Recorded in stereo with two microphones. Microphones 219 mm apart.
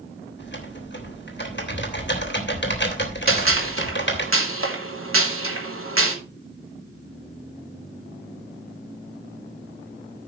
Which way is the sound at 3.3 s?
75° right (ahead or behind).